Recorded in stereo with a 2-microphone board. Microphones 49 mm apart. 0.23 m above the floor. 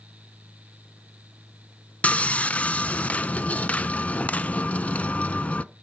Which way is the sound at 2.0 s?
30° left (ahead or behind).